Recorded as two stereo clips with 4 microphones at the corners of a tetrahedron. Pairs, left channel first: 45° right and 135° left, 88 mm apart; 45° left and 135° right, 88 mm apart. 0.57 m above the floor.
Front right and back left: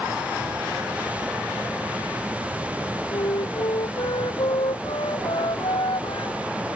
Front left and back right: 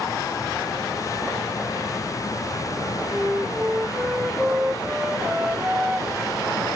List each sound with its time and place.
3.1 s a flute: 55° right